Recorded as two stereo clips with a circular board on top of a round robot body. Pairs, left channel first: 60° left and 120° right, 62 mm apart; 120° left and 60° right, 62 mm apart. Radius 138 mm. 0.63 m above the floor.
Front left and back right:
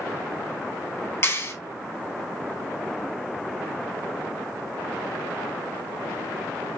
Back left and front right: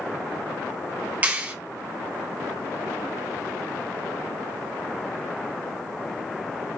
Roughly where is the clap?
Ahead.